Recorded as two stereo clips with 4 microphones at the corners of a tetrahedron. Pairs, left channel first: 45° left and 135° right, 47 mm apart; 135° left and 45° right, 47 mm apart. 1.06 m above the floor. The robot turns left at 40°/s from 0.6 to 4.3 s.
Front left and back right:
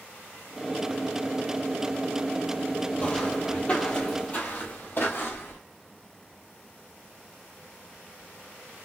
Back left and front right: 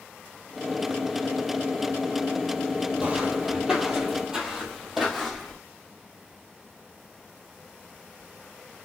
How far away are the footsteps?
About 1.2 m.